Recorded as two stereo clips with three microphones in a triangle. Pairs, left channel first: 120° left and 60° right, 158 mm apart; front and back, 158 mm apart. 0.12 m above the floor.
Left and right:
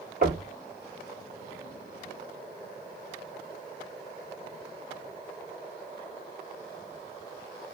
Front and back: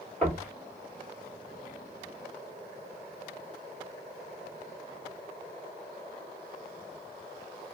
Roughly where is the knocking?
Right.